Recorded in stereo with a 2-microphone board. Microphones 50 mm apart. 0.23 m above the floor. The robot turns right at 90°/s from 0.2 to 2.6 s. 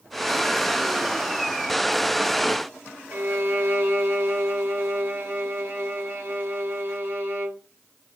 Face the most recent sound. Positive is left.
turn(degrees=-45)  # may be behind; listen again after turning